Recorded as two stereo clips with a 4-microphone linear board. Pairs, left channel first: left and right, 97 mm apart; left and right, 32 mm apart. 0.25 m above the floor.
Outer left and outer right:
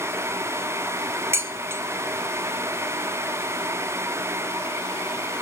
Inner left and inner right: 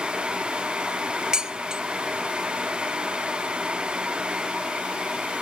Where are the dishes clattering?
25° right (ahead or behind), 0.7 m.